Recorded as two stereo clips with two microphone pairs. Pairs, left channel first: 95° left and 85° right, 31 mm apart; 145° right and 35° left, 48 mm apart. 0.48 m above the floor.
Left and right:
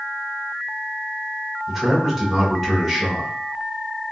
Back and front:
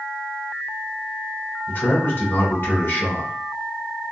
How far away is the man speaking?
About 1.9 m.